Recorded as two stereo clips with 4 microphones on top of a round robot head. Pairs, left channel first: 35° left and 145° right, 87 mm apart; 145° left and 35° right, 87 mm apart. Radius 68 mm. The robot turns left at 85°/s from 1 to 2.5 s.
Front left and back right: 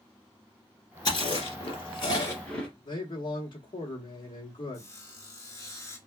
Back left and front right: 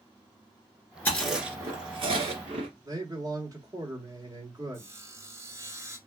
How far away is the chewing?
About 2.0 m.